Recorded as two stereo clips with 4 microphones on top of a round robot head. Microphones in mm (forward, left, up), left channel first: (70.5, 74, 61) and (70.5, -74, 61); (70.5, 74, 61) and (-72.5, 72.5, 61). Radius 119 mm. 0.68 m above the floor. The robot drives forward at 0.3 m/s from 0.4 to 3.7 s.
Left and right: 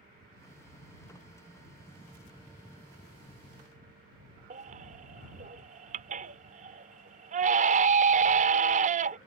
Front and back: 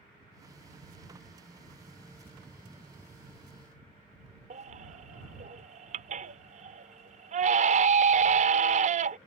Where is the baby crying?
135° right.